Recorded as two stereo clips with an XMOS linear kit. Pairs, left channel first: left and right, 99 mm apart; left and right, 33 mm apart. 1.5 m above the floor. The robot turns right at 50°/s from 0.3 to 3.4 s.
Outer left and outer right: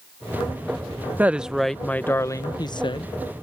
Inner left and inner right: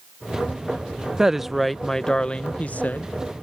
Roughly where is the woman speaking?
Ahead.